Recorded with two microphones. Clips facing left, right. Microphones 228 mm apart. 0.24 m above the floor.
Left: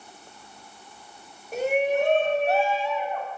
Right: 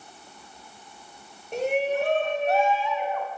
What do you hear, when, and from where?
1.5 s a shout: 5° left (ahead or behind), 1.1 m; by 3.3 s 50° left (ahead or behind), 1.6 m